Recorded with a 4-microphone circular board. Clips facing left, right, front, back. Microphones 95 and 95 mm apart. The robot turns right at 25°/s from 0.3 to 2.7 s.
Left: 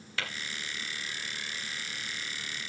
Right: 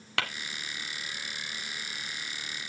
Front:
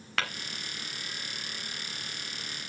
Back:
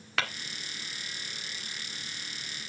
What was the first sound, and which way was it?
Tapping, 90° right.